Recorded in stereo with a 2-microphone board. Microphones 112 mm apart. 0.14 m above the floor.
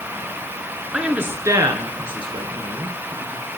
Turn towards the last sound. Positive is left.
turn(degrees=-70)  # may be behind; listen again after turning